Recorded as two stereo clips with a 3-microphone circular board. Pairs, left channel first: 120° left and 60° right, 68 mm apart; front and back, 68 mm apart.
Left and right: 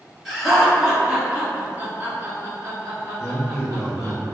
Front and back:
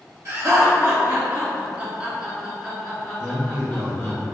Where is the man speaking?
125° right, 1.4 m.